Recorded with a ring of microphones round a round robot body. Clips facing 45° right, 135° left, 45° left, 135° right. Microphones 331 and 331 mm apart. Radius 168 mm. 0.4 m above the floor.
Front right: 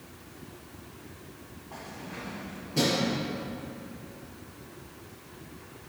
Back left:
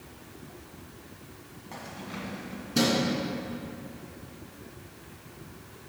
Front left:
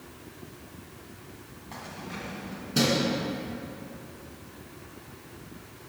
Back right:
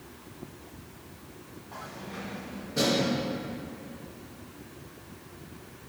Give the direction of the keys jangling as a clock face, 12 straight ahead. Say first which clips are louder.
Back left 2 dB, front left 1 dB; 9 o'clock.